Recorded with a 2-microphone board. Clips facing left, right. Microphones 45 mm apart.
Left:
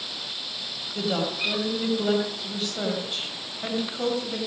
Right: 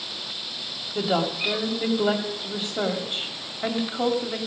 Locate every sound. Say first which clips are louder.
0.9 s a woman speaking: right 3 dB; 25° right (ahead or behind), 1.7 m